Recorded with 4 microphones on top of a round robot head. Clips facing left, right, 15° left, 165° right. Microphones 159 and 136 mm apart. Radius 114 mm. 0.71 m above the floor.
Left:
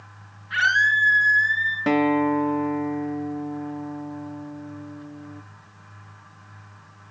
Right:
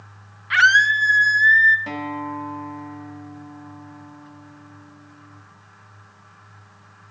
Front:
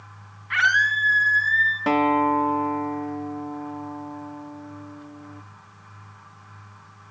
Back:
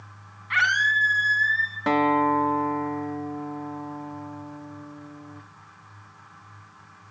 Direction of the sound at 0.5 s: 100° right.